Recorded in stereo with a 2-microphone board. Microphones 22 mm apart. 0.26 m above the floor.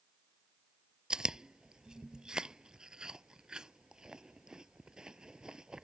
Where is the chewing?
35° right (ahead or behind).